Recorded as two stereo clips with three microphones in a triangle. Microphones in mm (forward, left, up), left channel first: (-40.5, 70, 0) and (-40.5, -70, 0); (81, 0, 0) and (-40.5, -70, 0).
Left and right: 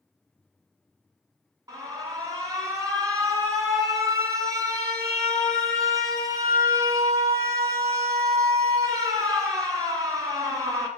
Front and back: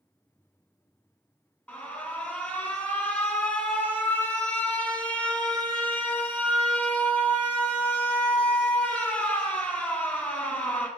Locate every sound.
1.7 s an alarm: 45° right, 1.5 m